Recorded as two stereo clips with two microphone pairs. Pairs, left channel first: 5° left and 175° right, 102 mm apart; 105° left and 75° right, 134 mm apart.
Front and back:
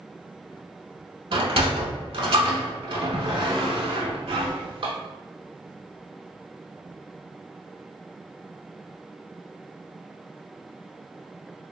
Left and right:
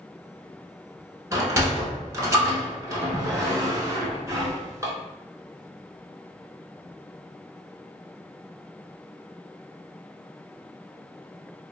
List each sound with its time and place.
1.3 s a sliding door: 145° right, 0.6 m